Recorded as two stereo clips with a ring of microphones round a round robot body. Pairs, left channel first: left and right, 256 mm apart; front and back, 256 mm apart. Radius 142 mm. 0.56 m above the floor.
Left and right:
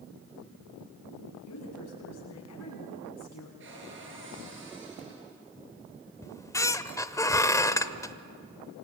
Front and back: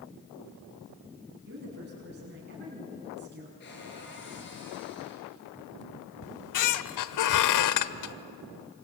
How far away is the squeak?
About 1.0 m.